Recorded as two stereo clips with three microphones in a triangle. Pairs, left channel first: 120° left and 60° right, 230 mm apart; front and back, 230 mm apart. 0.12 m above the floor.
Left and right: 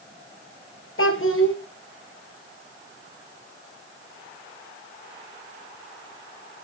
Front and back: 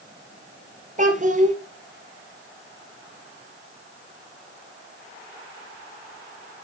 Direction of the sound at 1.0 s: 130° left.